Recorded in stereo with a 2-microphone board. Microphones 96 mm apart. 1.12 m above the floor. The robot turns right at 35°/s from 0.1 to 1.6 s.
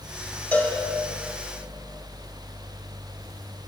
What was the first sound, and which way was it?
A cowbell, 15° left (ahead or behind).